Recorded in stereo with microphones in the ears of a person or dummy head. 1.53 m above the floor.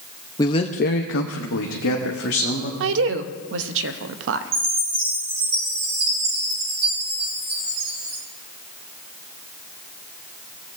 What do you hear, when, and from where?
0.4 s a man speaking: 20° left (ahead or behind), 0.6 m; by 2.7 s 60° left (ahead or behind), 1.4 m
2.8 s a woman speaking: 70° right (ahead or behind), 0.6 m
4.5 s a chime: 50° right (ahead or behind), 4.5 m